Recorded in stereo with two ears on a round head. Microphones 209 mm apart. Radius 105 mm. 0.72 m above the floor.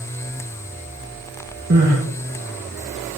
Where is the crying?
45° right (ahead or behind), 6 m.